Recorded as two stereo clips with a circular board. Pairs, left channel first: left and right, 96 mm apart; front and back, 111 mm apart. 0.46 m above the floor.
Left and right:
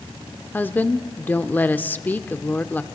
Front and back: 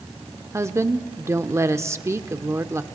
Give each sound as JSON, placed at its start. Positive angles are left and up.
{"t": 0.5, "sound": "a woman speaking", "azimuth_deg": 140, "distance_m": 0.9}